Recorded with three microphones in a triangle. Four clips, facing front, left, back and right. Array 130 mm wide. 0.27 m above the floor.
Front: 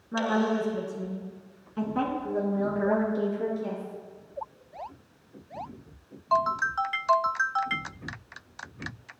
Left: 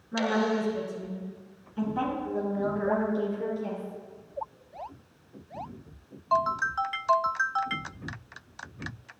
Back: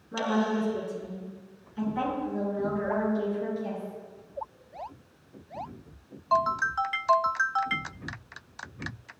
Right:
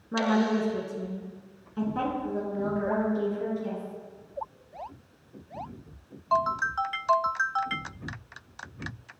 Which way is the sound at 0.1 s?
80° right.